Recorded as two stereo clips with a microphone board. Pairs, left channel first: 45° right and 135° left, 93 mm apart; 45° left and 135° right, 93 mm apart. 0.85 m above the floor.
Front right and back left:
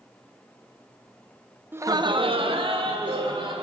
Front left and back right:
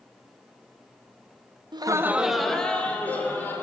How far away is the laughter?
About 0.6 m.